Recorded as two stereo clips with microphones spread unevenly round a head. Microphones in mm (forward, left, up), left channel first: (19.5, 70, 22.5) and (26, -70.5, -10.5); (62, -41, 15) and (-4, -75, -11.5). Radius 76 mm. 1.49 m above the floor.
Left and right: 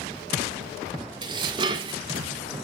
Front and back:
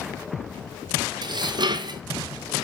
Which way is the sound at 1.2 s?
150° right.